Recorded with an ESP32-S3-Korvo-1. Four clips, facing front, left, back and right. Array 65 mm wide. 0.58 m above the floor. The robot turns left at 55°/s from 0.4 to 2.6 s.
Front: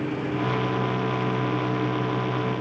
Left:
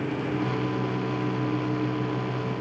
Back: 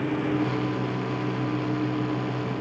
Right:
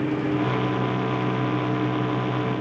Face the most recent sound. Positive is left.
No sound to turn to.